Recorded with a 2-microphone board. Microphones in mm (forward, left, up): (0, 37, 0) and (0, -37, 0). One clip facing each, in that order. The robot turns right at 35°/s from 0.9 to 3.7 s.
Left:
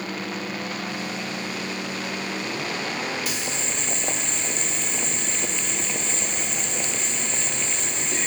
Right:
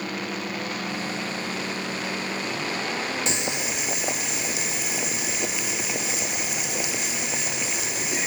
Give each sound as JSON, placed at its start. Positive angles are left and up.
{"t": 3.3, "sound": "boiling", "side_deg": -25, "distance_m": 0.8}